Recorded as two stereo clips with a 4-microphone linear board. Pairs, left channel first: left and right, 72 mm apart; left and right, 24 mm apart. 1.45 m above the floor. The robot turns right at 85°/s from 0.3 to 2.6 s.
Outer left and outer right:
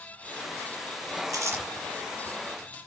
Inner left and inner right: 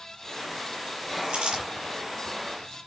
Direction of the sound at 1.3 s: 55° right (ahead or behind).